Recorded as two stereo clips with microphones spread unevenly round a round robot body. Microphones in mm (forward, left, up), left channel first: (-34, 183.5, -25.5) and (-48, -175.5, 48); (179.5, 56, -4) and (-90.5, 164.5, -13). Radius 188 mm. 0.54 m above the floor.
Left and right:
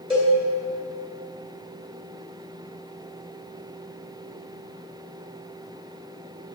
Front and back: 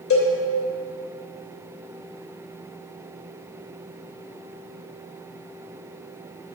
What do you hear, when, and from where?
0.1 s a cowbell: 10° right, 2.5 m